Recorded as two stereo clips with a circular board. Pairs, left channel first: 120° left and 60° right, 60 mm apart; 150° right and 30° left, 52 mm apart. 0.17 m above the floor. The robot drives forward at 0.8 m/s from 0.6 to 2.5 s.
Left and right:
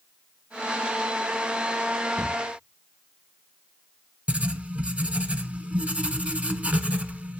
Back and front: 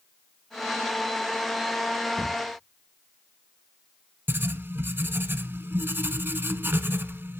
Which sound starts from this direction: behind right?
A cupboard door, at 2.2 s.